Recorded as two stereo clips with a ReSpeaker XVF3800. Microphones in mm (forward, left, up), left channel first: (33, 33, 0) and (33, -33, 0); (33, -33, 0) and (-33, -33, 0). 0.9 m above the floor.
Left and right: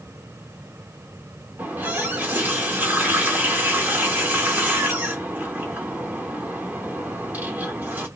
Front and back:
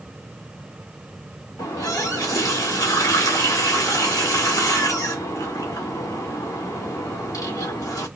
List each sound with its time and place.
1.6 s a running tap: 25° right, 1.7 m